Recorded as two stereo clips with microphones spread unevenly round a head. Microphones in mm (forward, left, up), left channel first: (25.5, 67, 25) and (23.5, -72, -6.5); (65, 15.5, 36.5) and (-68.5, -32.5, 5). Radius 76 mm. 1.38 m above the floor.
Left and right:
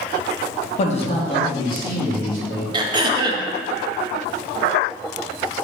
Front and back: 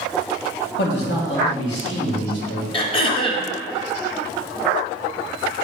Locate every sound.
0.8 s a man speaking: 45° left, 1.7 m; by 2.6 s 20° left, 3 m
2.7 s throat clearing: 40° right, 0.8 m